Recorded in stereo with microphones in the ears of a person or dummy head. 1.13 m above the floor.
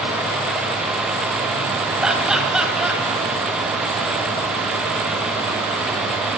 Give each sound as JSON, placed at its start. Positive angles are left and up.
{"t": 2.0, "sound": "laughter", "side_deg": -5, "distance_m": 7.5}